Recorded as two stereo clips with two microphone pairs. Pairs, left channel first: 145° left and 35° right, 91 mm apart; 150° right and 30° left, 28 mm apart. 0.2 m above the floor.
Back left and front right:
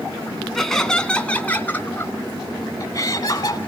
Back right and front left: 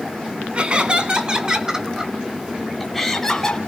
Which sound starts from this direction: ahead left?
Laughter, at 0.6 s.